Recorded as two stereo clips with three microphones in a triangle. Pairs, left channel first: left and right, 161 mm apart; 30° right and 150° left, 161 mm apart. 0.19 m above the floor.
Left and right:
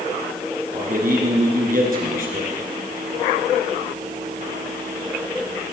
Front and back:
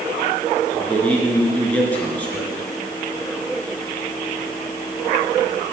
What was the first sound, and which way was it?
A man speaking, 110° right.